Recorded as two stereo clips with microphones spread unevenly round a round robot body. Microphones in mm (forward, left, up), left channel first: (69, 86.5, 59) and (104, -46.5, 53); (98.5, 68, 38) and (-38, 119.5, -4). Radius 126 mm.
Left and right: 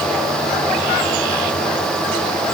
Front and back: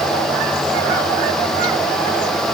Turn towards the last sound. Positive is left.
No sound to turn to.